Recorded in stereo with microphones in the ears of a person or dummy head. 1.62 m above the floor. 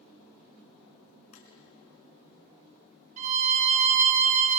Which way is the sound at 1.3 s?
45° left (ahead or behind).